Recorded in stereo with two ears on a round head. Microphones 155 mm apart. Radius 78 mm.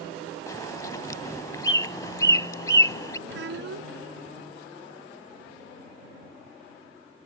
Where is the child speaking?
80° right.